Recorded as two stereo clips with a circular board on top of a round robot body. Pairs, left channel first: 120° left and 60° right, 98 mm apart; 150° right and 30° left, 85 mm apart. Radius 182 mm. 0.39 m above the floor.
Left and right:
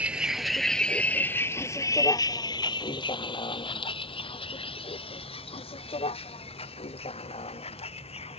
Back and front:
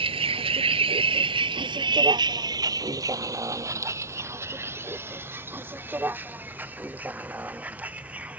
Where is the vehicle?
20° left; by 8.4 s 105° left.